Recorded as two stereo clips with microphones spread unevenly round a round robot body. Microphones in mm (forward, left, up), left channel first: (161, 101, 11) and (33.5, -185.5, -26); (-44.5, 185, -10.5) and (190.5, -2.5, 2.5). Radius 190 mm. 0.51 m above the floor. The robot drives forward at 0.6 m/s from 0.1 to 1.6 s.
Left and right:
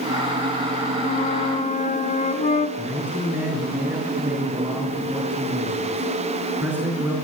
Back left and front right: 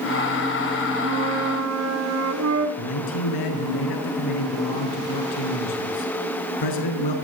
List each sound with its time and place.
1.0 s a flute: 5° right, 3.5 m
2.8 s a man speaking: 160° left, 7 m